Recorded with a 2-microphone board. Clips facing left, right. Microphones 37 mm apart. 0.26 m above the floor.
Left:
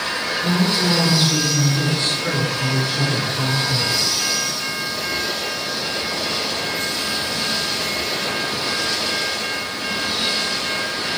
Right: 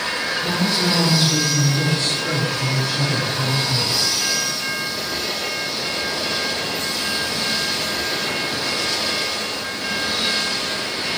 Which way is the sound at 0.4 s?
30° left (ahead or behind).